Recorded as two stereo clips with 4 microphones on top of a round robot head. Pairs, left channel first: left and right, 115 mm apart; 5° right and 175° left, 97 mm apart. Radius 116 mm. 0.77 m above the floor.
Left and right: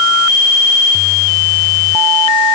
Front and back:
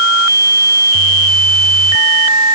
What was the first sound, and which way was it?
Only background noise.